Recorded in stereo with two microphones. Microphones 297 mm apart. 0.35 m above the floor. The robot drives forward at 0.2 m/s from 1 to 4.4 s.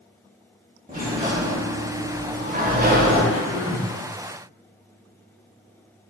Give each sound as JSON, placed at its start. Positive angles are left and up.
{"t": 0.9, "sound": "a sliding door", "side_deg": -25, "distance_m": 0.7}
{"t": 3.3, "sound": "throat clearing", "side_deg": -10, "distance_m": 1.2}